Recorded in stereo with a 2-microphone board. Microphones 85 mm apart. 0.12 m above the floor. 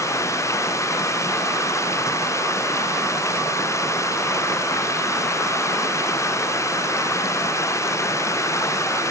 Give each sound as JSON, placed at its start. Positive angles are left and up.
{"t": 0.0, "sound": "running water", "side_deg": 35}